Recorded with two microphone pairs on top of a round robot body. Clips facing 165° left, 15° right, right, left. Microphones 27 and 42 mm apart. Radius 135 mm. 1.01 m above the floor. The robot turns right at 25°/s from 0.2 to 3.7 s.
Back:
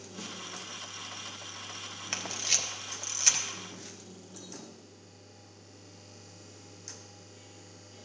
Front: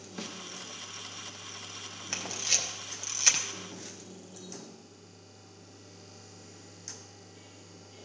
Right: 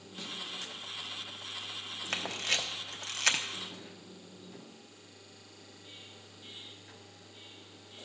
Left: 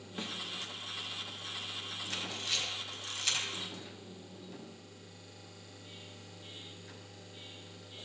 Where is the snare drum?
40° left, 1.3 m; by 0.4 s 45° left, 1.3 m.